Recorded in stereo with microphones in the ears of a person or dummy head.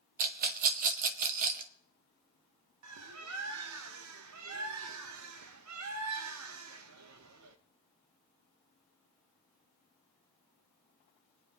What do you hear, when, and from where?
0.2 s a rattle: 40° right (ahead or behind), 1.0 m
2.8 s a bird: 85° right, 0.9 m